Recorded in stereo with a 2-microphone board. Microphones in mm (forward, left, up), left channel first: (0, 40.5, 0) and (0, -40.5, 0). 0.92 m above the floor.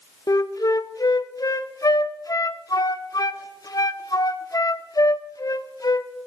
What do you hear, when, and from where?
0.3 s a flute: 55° left (ahead or behind), 0.6 m